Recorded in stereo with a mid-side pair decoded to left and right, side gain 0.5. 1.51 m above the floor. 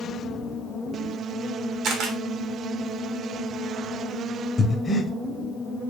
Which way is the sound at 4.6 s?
35° left.